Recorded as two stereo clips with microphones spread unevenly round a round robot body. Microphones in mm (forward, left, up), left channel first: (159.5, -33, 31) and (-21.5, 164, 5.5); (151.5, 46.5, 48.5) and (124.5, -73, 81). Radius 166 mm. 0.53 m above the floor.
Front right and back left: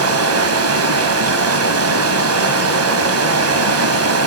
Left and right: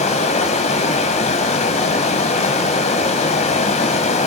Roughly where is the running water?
Left.